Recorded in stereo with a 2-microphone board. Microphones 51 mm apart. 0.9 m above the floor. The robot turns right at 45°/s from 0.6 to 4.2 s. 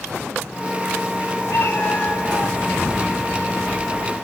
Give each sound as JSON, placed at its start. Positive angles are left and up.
{"t": 1.5, "sound": "a cat meowing", "azimuth_deg": 120, "distance_m": 5.5}